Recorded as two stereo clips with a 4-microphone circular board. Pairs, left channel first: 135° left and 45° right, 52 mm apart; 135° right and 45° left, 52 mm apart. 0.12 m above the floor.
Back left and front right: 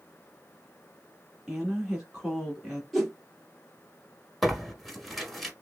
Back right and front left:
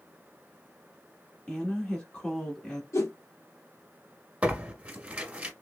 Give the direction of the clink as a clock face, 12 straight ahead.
No clink in this recording.